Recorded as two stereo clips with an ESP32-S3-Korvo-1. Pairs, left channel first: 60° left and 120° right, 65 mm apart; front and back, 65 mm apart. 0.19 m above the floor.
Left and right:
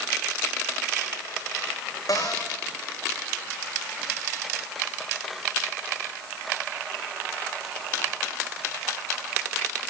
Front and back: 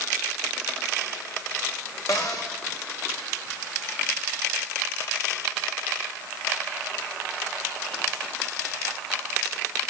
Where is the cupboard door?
30° left, 7 m.